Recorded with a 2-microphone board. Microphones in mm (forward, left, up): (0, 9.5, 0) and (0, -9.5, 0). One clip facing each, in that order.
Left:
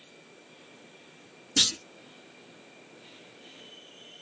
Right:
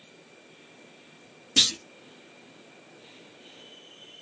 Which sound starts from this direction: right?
A clunk, at 1.6 s.